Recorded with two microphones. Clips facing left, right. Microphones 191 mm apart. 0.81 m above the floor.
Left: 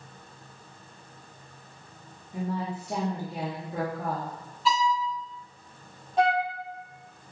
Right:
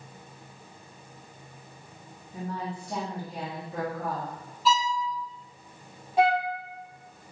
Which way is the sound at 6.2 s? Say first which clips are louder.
Right 1 dB; 5° right (ahead or behind).